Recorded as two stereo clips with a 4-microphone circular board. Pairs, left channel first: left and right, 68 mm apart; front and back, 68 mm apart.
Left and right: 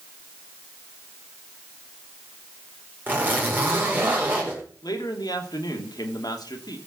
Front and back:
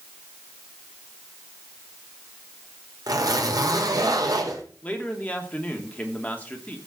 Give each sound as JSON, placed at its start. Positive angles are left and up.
{"t": 3.1, "sound": "a zipper", "azimuth_deg": -150, "distance_m": 4.0}
{"t": 4.8, "sound": "a man speaking", "azimuth_deg": 70, "distance_m": 2.5}